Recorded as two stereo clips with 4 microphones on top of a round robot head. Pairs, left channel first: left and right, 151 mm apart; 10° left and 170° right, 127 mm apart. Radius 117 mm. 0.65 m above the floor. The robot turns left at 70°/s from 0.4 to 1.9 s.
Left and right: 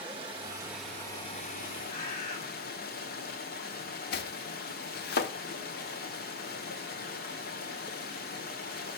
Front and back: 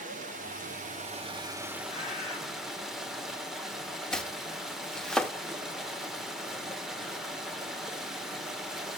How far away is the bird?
About 4 m.